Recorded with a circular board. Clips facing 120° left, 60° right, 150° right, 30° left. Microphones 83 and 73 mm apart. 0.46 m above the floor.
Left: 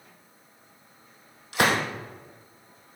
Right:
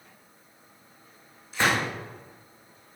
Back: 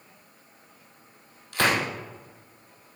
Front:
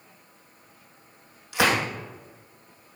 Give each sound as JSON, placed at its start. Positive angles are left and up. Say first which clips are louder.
{"t": 1.5, "sound": "a gunshot", "louder": "left 2 dB, front 1 dB", "azimuth_deg": 115, "distance_m": 3.0}